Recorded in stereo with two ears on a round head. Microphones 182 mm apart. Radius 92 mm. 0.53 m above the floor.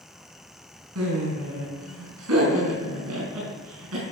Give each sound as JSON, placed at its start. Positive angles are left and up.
{"t": 0.9, "sound": "laughter", "side_deg": -85, "distance_m": 5.0}